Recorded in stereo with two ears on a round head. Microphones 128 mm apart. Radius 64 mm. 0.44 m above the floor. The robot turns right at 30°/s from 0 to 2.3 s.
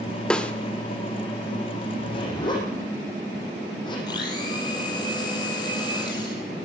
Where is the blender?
30° left (ahead or behind), 5.5 m.